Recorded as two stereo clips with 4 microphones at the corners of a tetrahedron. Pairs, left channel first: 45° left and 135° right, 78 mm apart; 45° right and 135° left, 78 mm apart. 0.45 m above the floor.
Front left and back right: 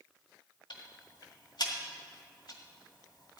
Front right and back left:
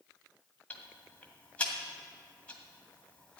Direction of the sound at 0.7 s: 25° left.